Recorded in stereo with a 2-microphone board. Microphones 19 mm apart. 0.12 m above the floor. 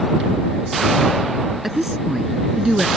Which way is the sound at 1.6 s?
20° right (ahead or behind).